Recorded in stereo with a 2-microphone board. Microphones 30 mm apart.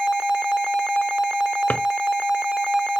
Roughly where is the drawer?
Left.